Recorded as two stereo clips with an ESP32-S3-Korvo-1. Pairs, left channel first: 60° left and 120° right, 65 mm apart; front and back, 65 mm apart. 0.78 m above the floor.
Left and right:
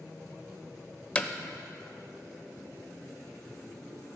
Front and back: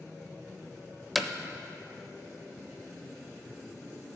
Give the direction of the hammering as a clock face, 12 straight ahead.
9 o'clock.